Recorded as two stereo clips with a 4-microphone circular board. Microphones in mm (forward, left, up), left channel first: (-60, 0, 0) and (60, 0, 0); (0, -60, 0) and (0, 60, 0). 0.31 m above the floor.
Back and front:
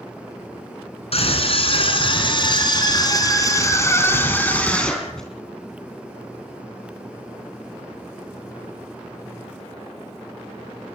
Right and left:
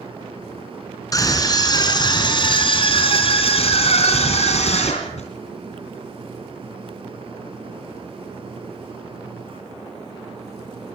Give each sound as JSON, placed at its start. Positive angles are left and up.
{"t": 1.1, "sound": "a scream", "azimuth_deg": -150, "distance_m": 4.0}